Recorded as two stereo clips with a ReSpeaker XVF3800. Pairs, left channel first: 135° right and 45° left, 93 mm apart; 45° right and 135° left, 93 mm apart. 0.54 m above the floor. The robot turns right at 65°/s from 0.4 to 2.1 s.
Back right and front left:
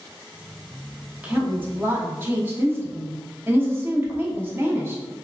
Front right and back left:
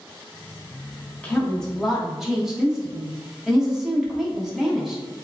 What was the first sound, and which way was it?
A woman speaking, 5° left.